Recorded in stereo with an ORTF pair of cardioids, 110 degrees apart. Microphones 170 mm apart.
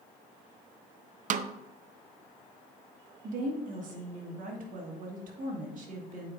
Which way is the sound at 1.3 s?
50° right.